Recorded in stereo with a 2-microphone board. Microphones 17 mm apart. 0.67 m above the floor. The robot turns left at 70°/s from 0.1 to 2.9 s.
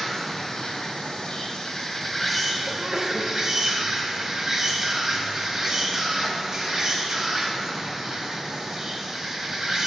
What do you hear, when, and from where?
0.0 s an insect: 145° left, 0.9 m; by 9.9 s 50° right, 0.9 m
2.7 s a sneeze: 20° right (ahead or behind), 0.6 m; by 3.3 s 25° right (ahead or behind), 0.6 m